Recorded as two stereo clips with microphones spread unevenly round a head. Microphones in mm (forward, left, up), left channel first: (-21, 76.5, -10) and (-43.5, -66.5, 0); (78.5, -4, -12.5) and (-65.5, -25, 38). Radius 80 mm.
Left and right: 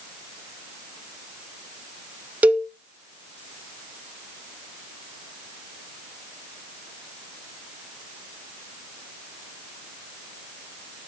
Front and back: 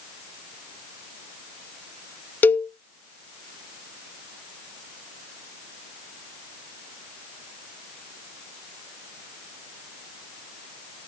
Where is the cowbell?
20° right, 0.7 m.